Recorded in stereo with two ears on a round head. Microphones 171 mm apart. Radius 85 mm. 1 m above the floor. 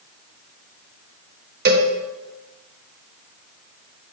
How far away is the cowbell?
About 1.4 m.